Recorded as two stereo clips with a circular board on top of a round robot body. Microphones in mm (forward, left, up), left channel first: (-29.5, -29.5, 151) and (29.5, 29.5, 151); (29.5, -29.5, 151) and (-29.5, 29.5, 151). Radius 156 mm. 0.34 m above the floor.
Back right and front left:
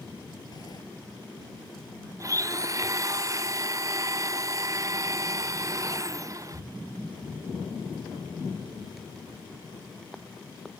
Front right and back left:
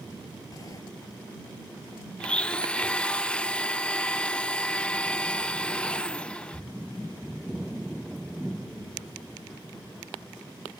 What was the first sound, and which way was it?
A sliding door, 95° right.